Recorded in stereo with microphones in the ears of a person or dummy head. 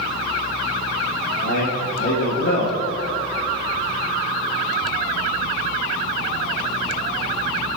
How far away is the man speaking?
About 2.5 m.